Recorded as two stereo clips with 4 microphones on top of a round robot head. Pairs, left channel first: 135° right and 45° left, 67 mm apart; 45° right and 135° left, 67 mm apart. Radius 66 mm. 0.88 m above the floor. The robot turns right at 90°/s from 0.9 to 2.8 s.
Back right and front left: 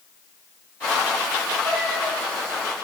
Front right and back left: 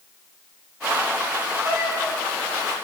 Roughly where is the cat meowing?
Left.